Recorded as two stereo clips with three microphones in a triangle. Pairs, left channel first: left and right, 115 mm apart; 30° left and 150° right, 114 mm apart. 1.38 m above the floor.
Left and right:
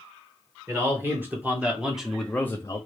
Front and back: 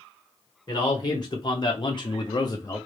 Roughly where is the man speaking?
Ahead right.